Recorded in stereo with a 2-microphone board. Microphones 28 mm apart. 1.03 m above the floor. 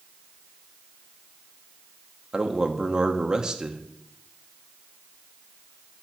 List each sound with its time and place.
2.3 s a man speaking: 30° right (ahead or behind), 0.8 m